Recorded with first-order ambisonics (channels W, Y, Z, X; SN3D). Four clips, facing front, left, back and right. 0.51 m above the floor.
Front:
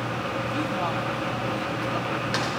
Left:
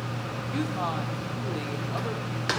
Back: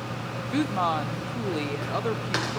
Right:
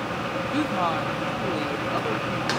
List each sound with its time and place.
0.5 s a woman speaking: 155° right, 0.9 m